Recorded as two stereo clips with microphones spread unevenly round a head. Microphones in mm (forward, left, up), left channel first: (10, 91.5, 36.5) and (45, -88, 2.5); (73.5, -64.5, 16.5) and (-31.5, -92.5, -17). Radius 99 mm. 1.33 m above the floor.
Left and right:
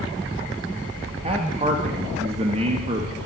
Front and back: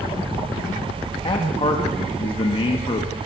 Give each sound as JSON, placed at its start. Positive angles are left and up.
{"t": 1.2, "sound": "a man speaking", "azimuth_deg": -20, "distance_m": 1.5}